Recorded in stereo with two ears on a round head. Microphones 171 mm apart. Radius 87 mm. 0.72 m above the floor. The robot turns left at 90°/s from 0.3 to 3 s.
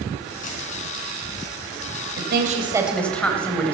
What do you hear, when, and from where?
0.4 s a dropped coin: 40° left (ahead or behind), 4.5 m; by 0.6 s 20° left (ahead or behind), 4.5 m
2.2 s a woman speaking: 110° right, 3.5 m; by 3.7 s 175° left, 3.5 m